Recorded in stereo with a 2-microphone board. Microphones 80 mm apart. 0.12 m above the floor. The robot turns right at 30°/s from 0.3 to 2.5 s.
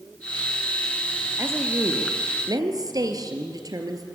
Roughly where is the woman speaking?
Behind right.